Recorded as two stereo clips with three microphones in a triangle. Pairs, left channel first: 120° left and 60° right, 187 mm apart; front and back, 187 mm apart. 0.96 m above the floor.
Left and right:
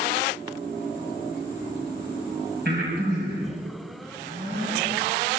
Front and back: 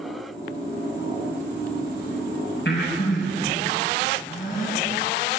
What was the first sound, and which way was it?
Breathing, 25° right.